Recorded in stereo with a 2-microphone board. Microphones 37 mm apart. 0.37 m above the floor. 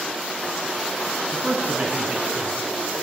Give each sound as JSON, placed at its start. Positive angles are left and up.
{"t": 1.3, "sound": "a man speaking", "side_deg": -30, "distance_m": 4.0}